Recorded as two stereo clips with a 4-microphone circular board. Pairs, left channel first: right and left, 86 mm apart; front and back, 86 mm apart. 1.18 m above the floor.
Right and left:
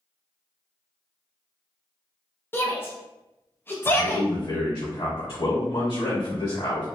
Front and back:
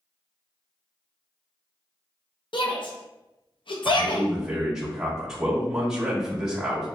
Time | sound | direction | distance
2.5 | a shout | 25° right | 0.5 m
3.9 | a man speaking | 95° right | 1.1 m